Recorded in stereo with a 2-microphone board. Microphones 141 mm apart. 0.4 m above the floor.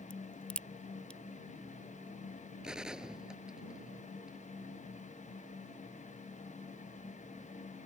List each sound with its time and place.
0.1 s a crack: 10° left (ahead or behind)
2.6 s a gunshot: 5° right (ahead or behind)